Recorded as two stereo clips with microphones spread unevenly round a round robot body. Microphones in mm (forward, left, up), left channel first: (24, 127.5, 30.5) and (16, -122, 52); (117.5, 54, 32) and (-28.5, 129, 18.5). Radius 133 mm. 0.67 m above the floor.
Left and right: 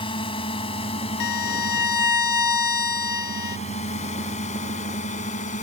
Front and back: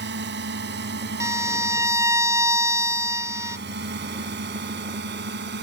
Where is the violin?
80° left.